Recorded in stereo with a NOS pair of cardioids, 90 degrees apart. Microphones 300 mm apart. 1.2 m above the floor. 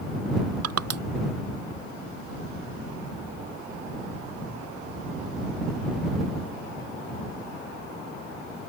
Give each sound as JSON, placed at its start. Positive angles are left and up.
{"t": 0.6, "sound": "crushing", "azimuth_deg": -60}